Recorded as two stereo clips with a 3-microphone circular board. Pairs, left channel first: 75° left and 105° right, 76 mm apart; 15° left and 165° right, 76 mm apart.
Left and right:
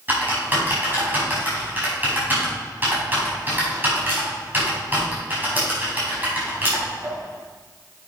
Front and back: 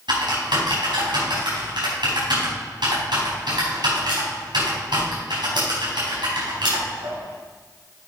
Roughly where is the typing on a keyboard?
Behind.